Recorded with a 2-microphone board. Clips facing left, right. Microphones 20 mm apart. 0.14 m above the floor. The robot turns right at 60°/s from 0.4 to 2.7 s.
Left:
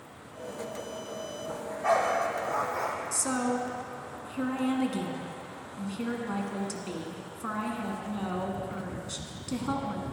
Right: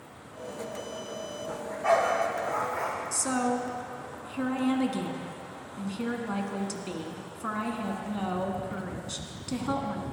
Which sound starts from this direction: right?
A dog barking, at 1.5 s.